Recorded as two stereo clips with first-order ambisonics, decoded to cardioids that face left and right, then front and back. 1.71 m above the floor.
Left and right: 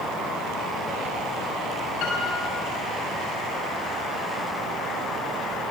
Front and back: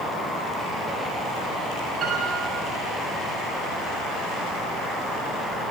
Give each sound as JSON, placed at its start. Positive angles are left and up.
{"t": 2.0, "sound": "a piano", "azimuth_deg": 115, "distance_m": 8.0}